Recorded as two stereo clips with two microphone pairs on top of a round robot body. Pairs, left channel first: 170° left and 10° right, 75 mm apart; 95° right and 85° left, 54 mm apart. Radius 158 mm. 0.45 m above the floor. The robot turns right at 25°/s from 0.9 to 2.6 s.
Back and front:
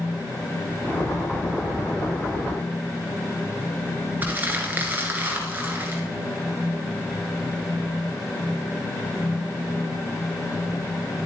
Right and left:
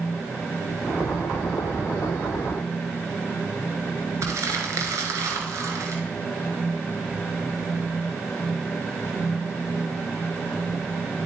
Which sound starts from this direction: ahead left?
Crumpling, at 4.2 s.